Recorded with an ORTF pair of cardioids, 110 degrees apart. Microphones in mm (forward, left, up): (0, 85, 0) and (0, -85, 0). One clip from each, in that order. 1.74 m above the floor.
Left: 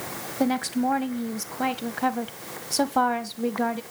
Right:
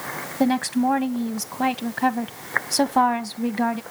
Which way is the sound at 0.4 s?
15° right.